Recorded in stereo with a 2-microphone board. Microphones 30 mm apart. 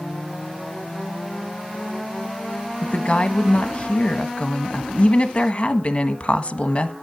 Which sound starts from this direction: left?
A woman speaking, at 2.8 s.